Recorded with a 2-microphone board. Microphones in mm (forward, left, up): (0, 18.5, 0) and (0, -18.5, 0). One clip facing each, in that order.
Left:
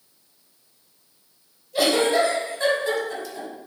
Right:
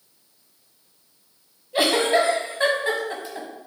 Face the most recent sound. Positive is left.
turn(degrees=-35)  # may be behind; listen again after turning